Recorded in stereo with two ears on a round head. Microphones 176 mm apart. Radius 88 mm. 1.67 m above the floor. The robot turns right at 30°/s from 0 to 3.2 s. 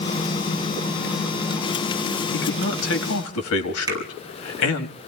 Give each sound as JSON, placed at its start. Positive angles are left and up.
{"t": 2.3, "sound": "a man speaking", "side_deg": 60, "distance_m": 3.5}
{"t": 3.9, "sound": "a finger snap", "side_deg": -20, "distance_m": 6.0}